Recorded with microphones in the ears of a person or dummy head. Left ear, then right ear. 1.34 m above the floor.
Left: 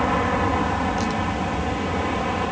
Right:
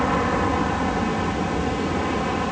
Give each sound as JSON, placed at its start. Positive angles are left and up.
{"t": 0.0, "sound": "an aircraft", "side_deg": 15}